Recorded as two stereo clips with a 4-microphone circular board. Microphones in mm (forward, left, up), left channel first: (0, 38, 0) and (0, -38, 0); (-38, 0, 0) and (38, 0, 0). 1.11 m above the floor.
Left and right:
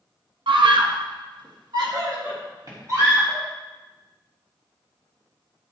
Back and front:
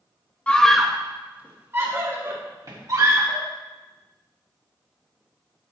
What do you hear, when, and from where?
0.5 s a scream: 105° right, 1.2 m; by 3.5 s 40° right, 3 m